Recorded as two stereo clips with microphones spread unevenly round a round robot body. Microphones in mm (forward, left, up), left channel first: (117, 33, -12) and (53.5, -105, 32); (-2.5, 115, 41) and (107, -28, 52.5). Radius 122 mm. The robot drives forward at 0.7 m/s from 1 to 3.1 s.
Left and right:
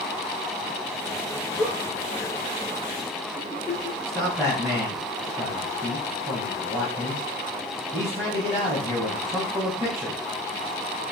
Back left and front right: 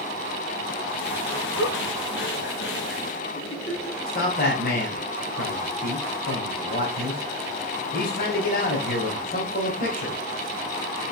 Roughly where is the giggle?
Behind.